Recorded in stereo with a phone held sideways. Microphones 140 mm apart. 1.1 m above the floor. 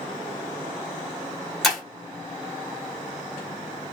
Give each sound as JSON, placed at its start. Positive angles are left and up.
{"t": 1.6, "sound": "breaking glass", "side_deg": 0, "distance_m": 1.8}